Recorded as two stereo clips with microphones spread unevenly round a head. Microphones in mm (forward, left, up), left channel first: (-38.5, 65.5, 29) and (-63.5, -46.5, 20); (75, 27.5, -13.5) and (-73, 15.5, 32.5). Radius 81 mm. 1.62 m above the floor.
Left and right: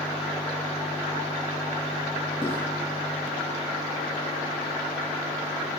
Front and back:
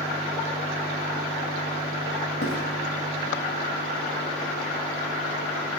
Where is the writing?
15° left, 3 m.